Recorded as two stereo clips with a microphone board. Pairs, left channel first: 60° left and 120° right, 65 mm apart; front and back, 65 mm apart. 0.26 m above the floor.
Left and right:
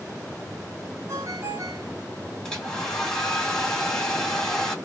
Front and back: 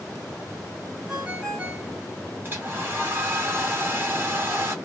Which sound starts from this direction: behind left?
A hair dryer, at 2.4 s.